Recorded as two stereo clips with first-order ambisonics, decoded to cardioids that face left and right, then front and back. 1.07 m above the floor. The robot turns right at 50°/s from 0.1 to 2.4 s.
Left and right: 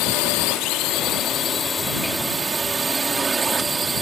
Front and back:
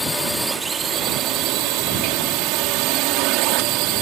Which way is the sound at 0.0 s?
80° left.